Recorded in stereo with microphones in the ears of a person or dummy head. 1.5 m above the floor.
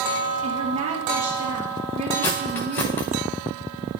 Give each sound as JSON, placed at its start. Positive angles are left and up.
{"t": 0.4, "sound": "a woman speaking", "side_deg": -35, "distance_m": 2.5}
{"t": 2.2, "sound": "cutlery clinking", "side_deg": 5, "distance_m": 0.6}